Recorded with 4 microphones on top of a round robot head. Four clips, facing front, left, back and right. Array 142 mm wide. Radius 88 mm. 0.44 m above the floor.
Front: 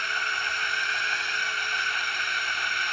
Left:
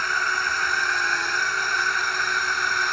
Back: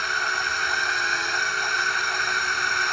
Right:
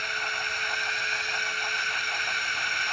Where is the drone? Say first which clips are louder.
Left 8 dB, back 4 dB; 125° left; by 2.9 s 130° left.